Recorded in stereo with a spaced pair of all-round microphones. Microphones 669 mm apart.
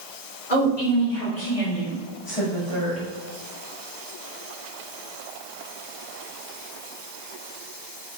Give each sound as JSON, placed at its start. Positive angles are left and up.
{"t": 0.5, "sound": "a woman speaking", "side_deg": 75, "distance_m": 3.0}